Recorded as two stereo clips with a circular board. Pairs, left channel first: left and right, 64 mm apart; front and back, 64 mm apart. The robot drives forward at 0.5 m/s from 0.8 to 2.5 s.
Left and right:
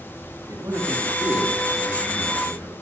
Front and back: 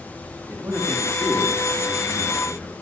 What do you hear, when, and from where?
0.5 s a man speaking: 125° right, 6 m; by 2.7 s 135° right, 6.5 m